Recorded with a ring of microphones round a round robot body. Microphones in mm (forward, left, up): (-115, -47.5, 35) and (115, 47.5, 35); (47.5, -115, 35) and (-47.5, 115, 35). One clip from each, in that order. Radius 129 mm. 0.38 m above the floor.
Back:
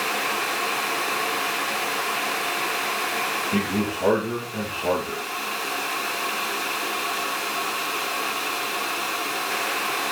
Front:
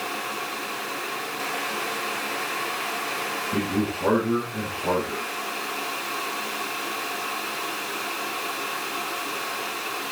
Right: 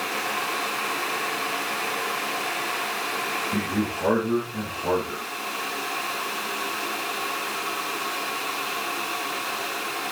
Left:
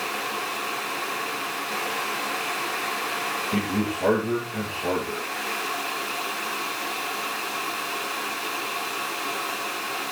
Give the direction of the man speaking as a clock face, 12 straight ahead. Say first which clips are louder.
Back 1 dB, even; 7 o'clock.